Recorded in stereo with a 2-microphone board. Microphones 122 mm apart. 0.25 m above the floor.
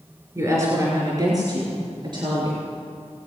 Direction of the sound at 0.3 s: 25° right (ahead or behind).